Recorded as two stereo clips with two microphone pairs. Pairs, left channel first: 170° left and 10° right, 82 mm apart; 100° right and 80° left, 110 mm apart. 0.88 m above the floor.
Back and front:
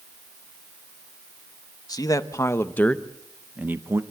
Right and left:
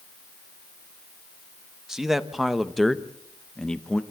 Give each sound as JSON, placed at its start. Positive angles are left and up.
{"t": 1.9, "sound": "a man speaking", "azimuth_deg": 165, "distance_m": 1.2}